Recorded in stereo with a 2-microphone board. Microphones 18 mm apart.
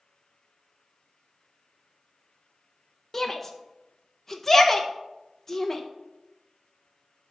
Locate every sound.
3.1 s a shout: 15° left (ahead or behind), 0.6 m